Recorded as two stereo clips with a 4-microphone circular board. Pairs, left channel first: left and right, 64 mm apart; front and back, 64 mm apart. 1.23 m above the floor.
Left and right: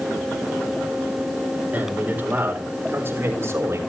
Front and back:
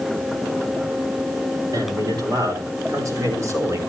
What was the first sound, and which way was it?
A man speaking, 160° right.